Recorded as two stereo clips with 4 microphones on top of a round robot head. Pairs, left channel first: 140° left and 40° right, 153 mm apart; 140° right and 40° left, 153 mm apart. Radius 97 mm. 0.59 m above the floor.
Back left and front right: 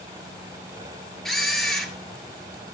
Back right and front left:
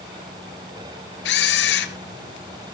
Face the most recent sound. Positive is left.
turn(degrees=-135)